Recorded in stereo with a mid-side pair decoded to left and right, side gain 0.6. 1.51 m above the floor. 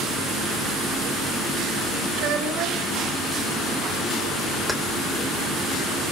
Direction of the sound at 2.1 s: 65° right.